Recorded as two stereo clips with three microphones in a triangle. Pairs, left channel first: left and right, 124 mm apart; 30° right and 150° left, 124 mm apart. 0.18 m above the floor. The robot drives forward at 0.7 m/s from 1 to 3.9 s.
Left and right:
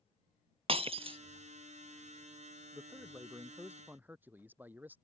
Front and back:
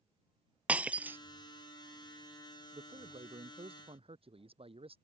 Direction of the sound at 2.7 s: 165° right.